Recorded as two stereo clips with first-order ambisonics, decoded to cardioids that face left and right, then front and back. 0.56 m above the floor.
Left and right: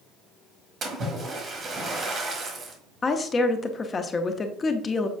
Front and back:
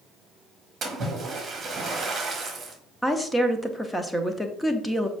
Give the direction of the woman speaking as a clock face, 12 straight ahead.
9 o'clock.